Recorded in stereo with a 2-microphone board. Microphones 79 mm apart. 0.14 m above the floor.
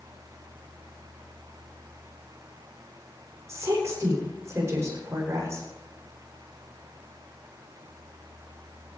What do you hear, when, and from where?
3.5 s a woman speaking: 35° right (ahead or behind), 8.5 m